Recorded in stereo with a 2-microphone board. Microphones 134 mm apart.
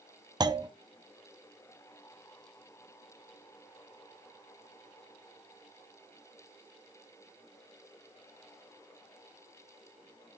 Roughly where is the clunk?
Right.